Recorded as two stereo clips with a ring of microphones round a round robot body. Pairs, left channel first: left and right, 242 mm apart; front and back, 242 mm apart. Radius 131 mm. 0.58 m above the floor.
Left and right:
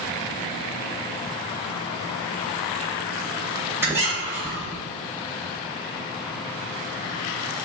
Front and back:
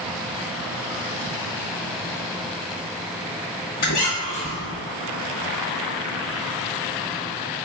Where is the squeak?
10° right, 1.3 m.